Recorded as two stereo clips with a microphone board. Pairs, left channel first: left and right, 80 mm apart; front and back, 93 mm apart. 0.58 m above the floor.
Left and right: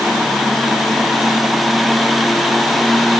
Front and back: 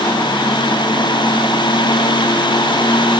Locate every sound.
Only background noise.